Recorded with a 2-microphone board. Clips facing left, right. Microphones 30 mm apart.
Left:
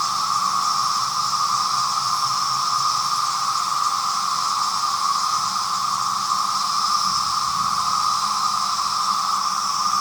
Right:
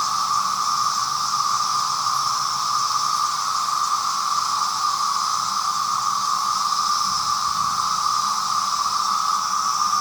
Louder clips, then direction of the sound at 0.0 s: Even; 55° left (ahead or behind).